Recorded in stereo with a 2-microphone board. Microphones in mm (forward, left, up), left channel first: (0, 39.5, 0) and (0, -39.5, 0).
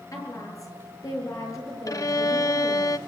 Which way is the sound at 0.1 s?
45° left (ahead or behind).